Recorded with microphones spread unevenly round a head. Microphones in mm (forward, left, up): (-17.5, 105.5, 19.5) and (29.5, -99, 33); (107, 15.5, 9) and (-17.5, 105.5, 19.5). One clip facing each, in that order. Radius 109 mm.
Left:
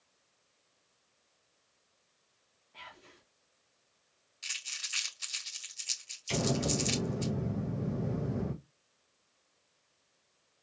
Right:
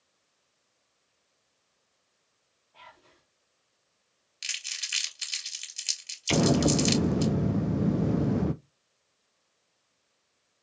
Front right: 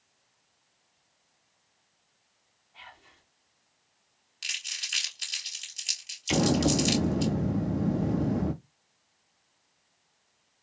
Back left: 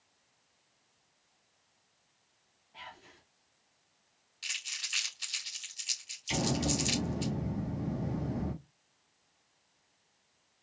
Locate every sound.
2.7 s whispering: 140° left, 0.8 m
4.4 s crumpling: 85° right, 2.5 m
6.3 s an explosion: 75° right, 0.5 m